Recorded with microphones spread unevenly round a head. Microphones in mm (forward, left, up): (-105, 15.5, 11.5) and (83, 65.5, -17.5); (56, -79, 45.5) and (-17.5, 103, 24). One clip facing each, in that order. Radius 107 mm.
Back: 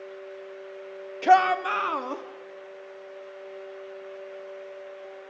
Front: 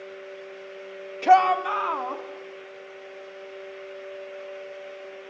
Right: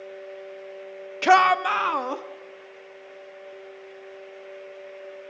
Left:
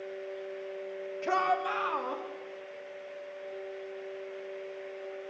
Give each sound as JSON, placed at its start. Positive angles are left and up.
{"t": 1.2, "sound": "a shout", "azimuth_deg": -75, "distance_m": 0.9}